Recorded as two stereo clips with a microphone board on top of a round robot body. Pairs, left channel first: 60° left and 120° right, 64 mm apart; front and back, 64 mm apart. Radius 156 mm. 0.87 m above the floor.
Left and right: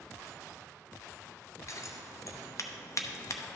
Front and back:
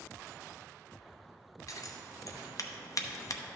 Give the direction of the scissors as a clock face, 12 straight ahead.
11 o'clock.